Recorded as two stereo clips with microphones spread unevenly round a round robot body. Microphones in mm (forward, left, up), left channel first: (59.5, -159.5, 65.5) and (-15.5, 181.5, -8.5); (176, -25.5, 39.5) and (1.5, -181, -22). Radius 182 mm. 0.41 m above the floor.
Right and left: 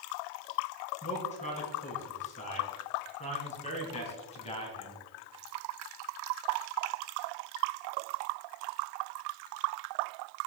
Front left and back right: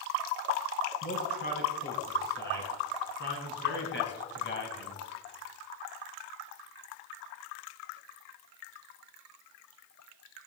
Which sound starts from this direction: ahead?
A man speaking, at 1.0 s.